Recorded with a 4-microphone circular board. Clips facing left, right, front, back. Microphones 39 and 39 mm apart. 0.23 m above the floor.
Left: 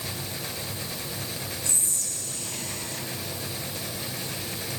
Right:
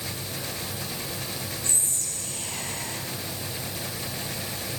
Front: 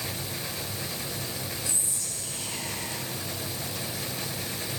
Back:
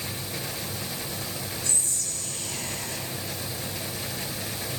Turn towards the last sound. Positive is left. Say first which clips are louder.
# even, back 2 dB
turn(degrees=-65)